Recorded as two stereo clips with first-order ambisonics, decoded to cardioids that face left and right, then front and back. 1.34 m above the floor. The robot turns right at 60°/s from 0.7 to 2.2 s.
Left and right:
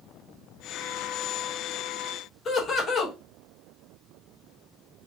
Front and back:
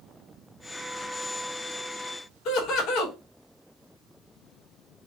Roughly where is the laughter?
Ahead left.